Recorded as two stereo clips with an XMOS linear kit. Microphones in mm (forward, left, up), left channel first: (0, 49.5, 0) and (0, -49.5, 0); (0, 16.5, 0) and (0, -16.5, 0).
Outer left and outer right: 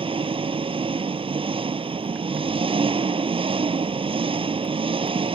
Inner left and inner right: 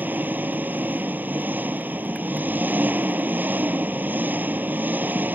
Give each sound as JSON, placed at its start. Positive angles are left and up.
{"t": 0.0, "sound": "an engine running", "side_deg": -65}